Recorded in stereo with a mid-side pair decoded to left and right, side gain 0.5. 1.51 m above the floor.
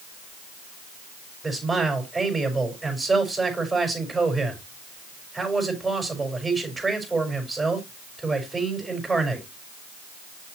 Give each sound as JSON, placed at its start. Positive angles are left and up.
{"t": 1.4, "sound": "a man speaking", "azimuth_deg": -20, "distance_m": 5.0}